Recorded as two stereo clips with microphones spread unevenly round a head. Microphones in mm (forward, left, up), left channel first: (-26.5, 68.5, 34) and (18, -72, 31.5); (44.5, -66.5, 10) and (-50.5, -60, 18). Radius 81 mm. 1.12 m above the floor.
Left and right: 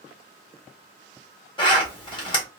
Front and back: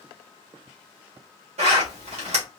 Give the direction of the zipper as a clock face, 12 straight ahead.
6 o'clock.